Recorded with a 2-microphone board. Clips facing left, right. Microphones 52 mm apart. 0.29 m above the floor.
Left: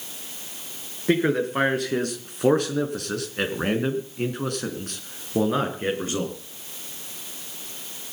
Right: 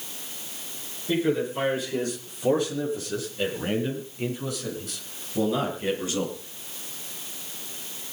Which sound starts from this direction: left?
A man speaking, at 1.1 s.